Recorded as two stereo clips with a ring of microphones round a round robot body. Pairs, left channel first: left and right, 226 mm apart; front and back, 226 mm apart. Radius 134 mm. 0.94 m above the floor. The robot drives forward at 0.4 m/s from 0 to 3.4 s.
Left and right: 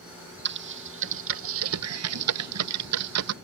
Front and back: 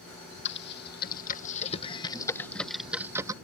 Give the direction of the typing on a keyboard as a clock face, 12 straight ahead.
2 o'clock.